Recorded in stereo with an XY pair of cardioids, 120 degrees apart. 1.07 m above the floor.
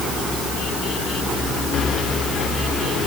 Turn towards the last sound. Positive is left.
No sound to turn to.